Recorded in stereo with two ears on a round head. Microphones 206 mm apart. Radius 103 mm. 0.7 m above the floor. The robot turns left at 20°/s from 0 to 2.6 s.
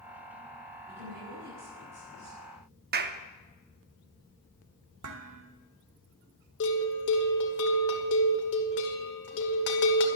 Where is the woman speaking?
45° right, 7.5 m; by 2.4 s 75° right, 7.5 m.